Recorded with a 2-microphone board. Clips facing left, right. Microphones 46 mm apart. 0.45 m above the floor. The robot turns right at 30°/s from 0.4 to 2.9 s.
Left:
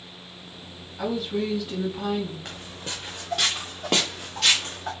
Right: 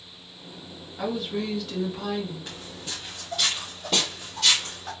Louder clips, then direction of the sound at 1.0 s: Left 2 dB; 10° right.